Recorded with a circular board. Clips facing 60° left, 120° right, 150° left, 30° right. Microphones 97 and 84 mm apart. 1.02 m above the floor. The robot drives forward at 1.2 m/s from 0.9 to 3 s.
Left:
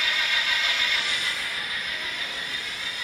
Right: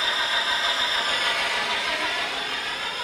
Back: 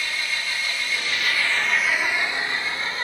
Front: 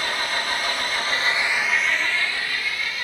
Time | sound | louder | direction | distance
0.0 | an engine running | right 2 dB, front 3 dB | 65° right | 1.2 m